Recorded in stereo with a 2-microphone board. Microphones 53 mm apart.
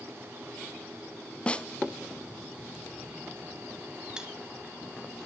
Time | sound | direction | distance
1.5 | a snare drum | 25° left (ahead or behind) | 0.8 m
4.2 | cutlery clinking | 15° right (ahead or behind) | 0.8 m